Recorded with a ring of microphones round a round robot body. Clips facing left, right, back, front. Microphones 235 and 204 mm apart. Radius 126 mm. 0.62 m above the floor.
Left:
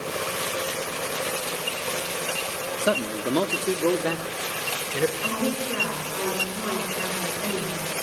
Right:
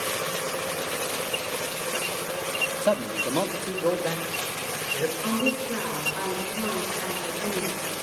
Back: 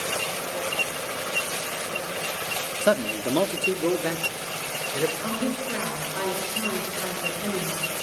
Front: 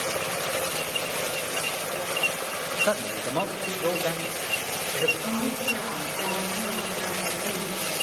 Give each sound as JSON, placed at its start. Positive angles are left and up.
{"t": 2.8, "sound": "a man speaking", "azimuth_deg": 155, "distance_m": 0.9}
{"t": 5.2, "sound": "a woman speaking", "azimuth_deg": 155, "distance_m": 9.5}